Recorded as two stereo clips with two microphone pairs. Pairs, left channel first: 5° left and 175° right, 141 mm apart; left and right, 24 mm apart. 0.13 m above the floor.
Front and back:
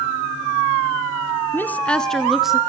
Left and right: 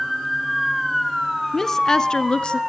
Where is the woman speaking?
50° left, 1.0 m; by 2.6 s 100° left, 1.4 m.